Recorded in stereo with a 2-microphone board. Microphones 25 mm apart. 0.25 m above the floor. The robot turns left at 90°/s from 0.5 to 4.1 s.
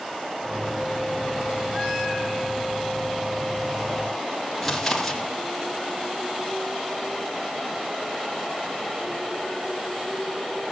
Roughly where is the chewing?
Centre.